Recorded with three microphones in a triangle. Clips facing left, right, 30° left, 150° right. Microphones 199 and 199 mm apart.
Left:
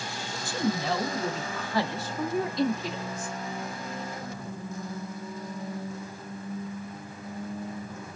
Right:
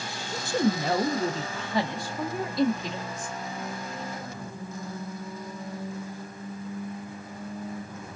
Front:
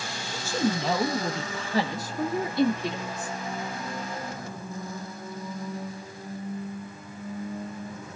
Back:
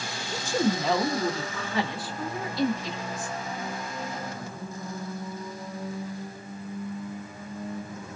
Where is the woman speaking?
80° right, 1.0 m; by 3.4 s 10° left, 1.6 m.